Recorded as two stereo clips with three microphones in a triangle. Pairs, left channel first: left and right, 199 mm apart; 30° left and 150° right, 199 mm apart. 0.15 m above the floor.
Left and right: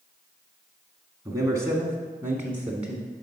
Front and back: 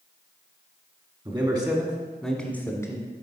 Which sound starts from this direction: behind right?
A man speaking, at 1.2 s.